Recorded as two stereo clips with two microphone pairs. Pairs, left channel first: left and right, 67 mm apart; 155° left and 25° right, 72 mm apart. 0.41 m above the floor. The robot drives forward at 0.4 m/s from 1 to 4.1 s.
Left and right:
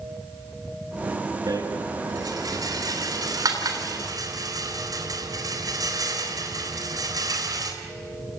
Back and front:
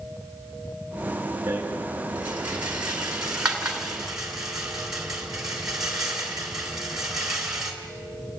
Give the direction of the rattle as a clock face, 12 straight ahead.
3 o'clock.